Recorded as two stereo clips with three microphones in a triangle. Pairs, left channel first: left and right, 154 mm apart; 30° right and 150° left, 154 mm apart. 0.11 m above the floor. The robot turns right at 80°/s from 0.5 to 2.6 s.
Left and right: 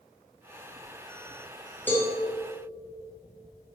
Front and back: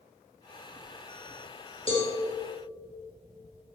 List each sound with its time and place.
1.9 s a cowbell: 15° left, 3 m; by 2.1 s 35° left, 3 m